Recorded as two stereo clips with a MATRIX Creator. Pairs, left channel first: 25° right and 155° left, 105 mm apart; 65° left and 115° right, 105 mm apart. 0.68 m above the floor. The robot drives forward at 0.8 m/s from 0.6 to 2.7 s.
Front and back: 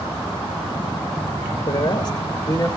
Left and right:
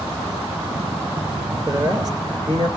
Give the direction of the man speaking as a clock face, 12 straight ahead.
2 o'clock.